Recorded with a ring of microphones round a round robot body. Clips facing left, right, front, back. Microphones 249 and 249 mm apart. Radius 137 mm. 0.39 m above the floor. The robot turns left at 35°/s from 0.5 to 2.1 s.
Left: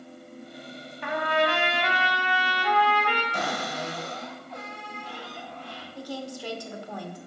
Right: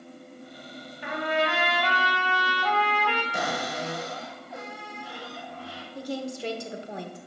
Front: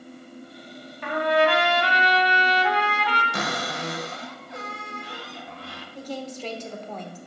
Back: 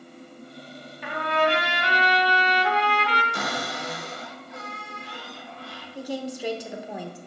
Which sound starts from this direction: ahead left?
A trumpet, at 1.0 s.